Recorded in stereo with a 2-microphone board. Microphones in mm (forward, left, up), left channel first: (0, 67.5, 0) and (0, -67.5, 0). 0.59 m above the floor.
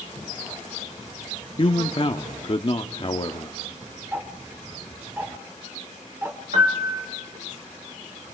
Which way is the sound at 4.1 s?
20° right (ahead or behind).